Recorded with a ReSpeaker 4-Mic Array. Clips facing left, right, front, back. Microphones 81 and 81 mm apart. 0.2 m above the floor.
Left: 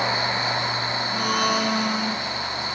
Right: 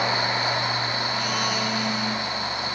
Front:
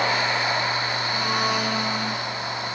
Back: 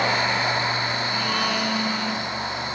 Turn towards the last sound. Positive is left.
turn(degrees=65)